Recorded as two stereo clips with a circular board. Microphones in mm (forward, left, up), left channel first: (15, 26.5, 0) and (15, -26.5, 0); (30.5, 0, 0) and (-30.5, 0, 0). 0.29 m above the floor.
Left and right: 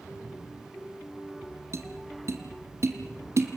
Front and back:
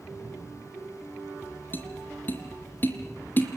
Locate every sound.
1.7 s tapping: 60° right, 1.7 m